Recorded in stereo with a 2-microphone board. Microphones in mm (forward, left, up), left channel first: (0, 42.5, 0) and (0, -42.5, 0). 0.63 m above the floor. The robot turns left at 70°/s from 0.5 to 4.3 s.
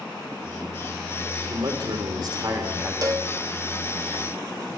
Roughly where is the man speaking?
Ahead right.